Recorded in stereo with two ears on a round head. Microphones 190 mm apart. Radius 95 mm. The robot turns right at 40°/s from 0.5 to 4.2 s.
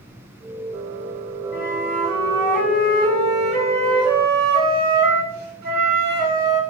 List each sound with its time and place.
1.5 s a flute: 130° left, 0.9 m; by 6.6 s 125° right, 0.9 m